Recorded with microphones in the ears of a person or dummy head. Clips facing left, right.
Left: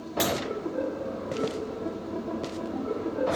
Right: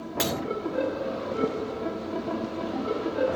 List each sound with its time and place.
0.2 s breaking glass: 5° right (ahead or behind), 2.5 m